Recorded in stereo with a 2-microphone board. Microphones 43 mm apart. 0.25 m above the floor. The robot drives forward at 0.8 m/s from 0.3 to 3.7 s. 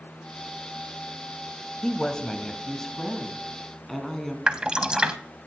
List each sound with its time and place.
1.8 s a woman speaking: 20° left (ahead or behind), 1.0 m; by 4.4 s 10° left (ahead or behind), 1.9 m
4.5 s dripping: 20° right (ahead or behind), 0.6 m